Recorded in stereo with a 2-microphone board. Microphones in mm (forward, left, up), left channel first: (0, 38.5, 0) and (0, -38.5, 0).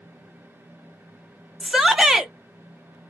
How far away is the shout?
About 0.7 m.